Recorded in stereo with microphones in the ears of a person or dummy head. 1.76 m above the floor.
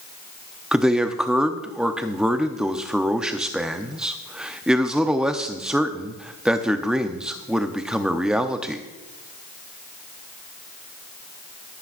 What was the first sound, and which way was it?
A man speaking, centre (ahead or behind).